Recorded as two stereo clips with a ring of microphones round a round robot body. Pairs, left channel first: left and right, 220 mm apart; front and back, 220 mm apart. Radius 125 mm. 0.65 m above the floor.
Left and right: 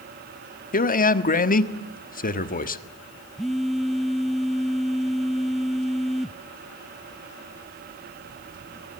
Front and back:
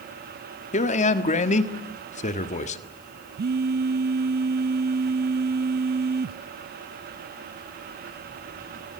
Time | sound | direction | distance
0.7 | a man speaking | 50° left | 1.5 m
3.4 | a phone buzzing | straight behind | 0.6 m